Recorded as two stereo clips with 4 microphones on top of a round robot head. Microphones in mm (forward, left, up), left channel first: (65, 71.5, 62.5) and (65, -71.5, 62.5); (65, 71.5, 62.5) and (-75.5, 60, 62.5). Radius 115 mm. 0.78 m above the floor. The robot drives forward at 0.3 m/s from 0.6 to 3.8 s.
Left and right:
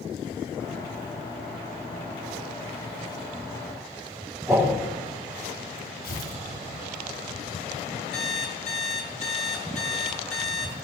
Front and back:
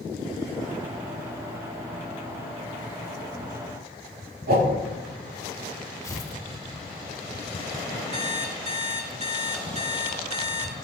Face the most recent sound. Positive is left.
turn(degrees=145)